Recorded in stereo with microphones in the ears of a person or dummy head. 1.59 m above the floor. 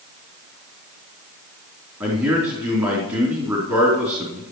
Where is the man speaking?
20° right (ahead or behind), 3 m.